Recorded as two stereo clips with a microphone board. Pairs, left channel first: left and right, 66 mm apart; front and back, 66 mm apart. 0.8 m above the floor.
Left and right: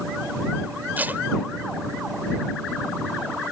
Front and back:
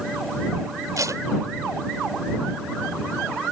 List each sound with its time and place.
1.0 s tape being pulled: 155° right